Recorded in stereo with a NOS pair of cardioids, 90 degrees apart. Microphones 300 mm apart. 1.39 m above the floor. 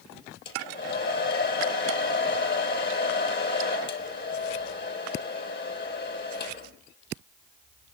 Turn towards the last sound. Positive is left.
turn(degrees=40)